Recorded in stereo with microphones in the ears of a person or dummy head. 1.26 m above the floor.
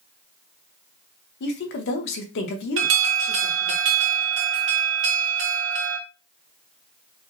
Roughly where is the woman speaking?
Left.